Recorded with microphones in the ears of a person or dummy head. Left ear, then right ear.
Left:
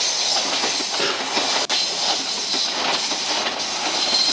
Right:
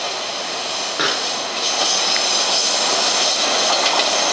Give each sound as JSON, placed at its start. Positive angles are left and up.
{"t": 1.0, "sound": "a pop", "side_deg": -65, "distance_m": 3.5}